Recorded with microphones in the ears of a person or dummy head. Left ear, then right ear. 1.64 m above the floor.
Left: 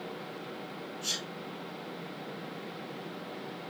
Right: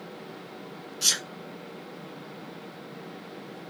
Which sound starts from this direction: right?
A sneeze, at 1.0 s.